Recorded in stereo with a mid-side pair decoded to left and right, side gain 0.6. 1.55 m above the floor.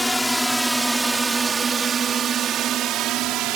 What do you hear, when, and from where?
0.0 s a drone: 5° left; by 3.6 s 70° right